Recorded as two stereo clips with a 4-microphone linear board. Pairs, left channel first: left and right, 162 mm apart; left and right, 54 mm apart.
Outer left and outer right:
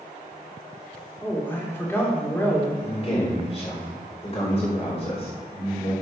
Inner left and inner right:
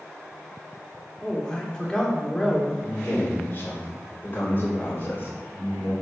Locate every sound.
1.2 s a man speaking: 15° left (ahead or behind), 2.5 m
2.8 s a man speaking: 40° left (ahead or behind), 3.5 m